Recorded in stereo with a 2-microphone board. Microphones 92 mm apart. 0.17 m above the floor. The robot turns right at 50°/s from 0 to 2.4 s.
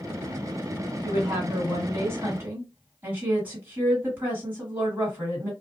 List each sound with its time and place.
1.0 s a woman speaking: 105° right, 1.9 m; by 5.5 s 35° right, 1.9 m